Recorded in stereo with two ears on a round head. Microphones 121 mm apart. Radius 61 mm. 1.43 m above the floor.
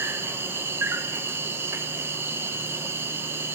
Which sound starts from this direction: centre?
An insect, at 0.0 s.